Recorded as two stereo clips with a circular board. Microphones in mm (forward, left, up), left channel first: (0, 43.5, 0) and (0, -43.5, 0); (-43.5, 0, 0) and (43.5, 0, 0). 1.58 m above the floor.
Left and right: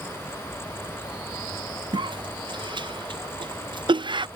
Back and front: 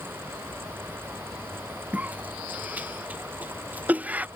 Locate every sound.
1.9 s a cough: 70° right